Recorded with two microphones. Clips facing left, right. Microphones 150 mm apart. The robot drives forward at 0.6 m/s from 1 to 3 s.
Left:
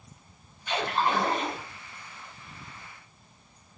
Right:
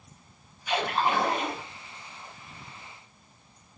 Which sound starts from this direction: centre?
A splash, at 0.7 s.